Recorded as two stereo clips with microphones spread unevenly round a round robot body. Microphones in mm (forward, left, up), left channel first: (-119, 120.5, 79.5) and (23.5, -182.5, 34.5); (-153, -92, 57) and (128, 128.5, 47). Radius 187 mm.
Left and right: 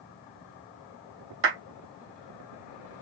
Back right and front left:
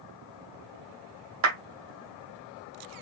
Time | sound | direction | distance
1.4 | a clap | 5° right | 2 m